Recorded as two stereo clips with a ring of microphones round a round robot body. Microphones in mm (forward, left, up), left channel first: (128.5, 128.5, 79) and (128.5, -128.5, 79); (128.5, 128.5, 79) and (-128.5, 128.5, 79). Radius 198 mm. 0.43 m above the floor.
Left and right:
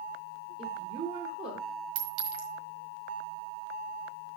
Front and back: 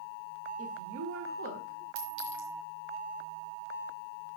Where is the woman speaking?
175° right, 1.6 m.